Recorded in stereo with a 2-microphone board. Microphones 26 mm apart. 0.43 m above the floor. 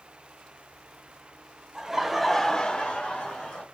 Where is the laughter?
15° right (ahead or behind), 1.3 m; by 3.6 s 45° left (ahead or behind), 1.7 m.